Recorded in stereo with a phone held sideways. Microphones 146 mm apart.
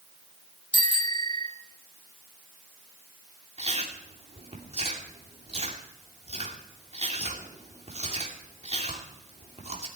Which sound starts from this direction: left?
A bicycle bell, at 0.7 s.